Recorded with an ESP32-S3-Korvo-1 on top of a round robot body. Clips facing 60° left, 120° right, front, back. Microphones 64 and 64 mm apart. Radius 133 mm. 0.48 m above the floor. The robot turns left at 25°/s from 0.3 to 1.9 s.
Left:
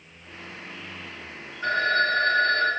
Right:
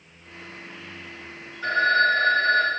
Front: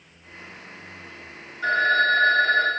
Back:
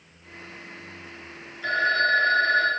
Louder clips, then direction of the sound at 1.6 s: Right 3 dB, front 3 dB; 10° right.